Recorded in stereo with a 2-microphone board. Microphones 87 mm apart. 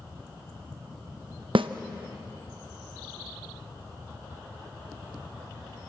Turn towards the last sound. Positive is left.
turn(degrees=-85)